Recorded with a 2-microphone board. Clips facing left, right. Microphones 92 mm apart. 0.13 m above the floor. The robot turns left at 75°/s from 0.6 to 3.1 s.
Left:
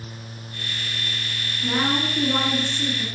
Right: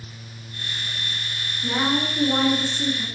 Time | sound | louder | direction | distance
1.6 | a woman speaking | even | 15° left (ahead or behind) | 1.6 m